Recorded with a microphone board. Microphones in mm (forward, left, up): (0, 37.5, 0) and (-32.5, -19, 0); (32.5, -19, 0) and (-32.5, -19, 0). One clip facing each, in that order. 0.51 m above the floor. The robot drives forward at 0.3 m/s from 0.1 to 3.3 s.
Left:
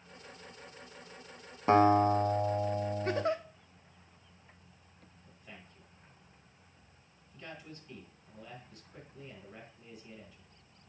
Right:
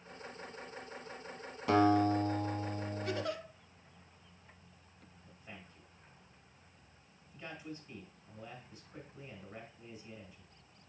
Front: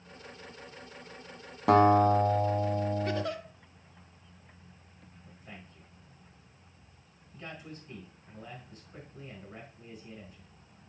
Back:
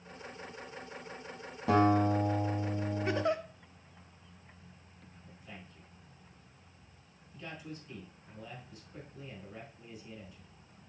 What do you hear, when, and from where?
1.7 s a guitar: straight ahead, 1.0 m; by 3.2 s 5° left, 0.5 m
3.0 s a giggle: 110° left, 0.5 m; by 3.4 s 120° left, 0.6 m
5.3 s a man speaking: 45° right, 4 m